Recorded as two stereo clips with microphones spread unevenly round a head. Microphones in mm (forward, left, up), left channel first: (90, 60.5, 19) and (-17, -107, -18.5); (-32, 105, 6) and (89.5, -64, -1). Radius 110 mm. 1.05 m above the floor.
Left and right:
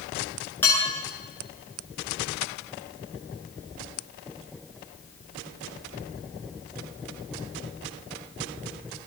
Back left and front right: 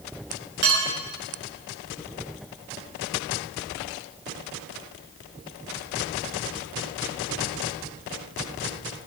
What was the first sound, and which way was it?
Dishes clattering, 20° right.